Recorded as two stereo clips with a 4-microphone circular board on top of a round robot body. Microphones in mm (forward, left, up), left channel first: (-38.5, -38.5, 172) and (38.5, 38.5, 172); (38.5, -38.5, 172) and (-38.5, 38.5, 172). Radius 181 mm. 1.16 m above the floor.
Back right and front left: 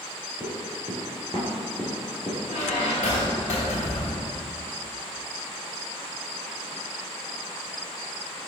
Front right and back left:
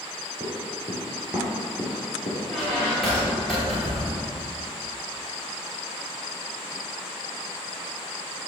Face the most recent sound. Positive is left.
turn(degrees=-135)